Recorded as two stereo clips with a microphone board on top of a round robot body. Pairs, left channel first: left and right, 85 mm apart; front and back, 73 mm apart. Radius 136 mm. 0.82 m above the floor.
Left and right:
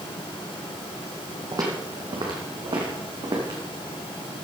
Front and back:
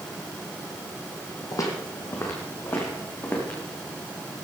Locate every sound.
1.5 s footsteps: 40° right, 2.0 m; by 3.6 s 65° right, 3.5 m